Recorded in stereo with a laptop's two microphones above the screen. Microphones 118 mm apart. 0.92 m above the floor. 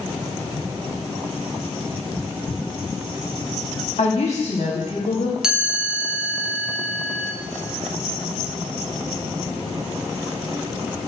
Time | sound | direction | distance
4.0 | a woman speaking | 70° left (ahead or behind) | 1.6 m
5.4 | a chime | 5° right (ahead or behind) | 0.6 m